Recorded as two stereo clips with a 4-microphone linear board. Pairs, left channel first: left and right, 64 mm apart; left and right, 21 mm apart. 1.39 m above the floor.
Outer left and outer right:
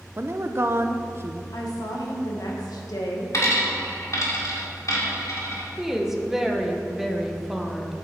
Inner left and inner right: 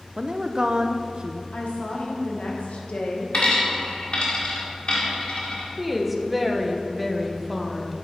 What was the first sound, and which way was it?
A woman speaking, 35° right (ahead or behind).